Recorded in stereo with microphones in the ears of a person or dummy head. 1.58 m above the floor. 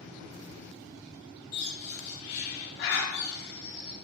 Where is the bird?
65° left (ahead or behind), 2 m.